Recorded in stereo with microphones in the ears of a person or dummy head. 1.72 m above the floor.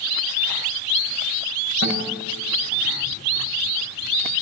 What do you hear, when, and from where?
1.8 s a guitar: 65° right (ahead or behind), 8.5 m